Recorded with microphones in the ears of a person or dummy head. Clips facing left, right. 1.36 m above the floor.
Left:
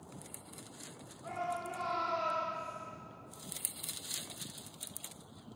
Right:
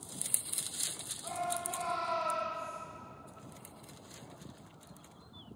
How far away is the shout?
About 4.5 m.